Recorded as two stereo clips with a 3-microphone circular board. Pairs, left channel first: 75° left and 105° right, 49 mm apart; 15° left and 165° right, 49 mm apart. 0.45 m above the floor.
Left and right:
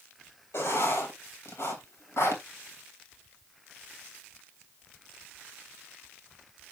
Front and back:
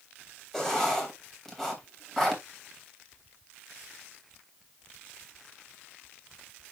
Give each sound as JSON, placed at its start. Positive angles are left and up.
{"t": 0.5, "sound": "writing", "azimuth_deg": 100, "distance_m": 3.0}